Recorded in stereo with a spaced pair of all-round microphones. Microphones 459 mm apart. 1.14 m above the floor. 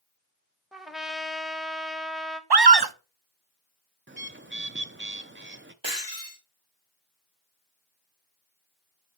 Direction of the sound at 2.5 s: 55° right (ahead or behind).